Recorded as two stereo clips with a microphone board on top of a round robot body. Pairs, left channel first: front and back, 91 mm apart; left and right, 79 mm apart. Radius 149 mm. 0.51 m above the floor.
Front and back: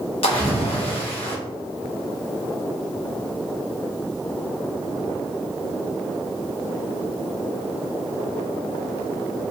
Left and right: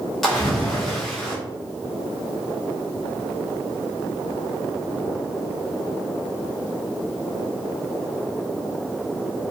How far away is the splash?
About 1.1 m.